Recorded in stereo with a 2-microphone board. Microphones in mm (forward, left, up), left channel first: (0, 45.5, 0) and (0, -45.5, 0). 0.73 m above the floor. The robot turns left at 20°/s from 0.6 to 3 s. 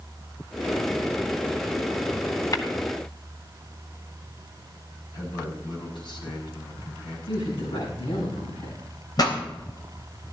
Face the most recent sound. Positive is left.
turn(degrees=50)  # may be behind; listen again after turning